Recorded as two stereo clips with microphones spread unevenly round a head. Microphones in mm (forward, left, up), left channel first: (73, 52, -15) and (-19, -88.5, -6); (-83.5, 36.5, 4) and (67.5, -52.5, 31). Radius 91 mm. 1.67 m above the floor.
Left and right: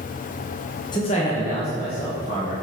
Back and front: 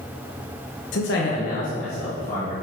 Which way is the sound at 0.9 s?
125° left.